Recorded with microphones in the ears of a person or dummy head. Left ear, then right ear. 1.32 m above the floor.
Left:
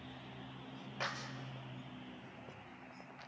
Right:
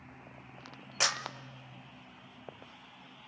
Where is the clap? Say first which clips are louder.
Right 11 dB; 80° right, 1.1 m.